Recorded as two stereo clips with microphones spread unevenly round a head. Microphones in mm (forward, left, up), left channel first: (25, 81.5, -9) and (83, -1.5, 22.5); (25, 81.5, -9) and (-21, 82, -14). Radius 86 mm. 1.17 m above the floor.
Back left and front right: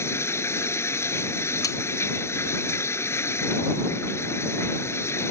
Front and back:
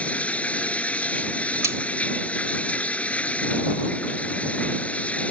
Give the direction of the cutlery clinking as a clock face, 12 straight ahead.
5 o'clock.